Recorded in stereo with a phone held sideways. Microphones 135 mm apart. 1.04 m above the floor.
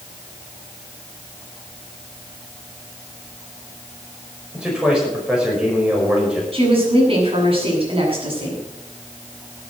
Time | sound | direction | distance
4.5 | a man speaking | 5° right (ahead or behind) | 5 m
6.5 | a woman speaking | 45° right (ahead or behind) | 7.5 m